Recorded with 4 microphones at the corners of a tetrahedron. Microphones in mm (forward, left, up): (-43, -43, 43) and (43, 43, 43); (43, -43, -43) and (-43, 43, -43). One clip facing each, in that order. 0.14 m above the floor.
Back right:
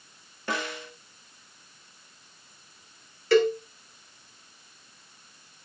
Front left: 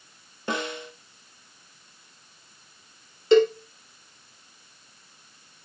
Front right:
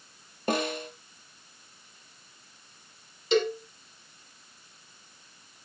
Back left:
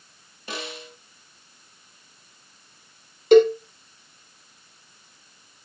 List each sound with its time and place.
0.5 s a snare drum: 20° right, 3 m
3.3 s a cowbell: 110° left, 2.5 m